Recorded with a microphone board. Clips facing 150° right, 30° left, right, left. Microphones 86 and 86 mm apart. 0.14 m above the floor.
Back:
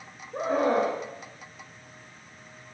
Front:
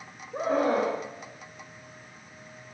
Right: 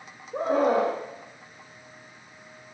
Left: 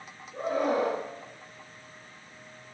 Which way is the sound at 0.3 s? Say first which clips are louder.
Back 1 dB, right 5 dB; 60° right.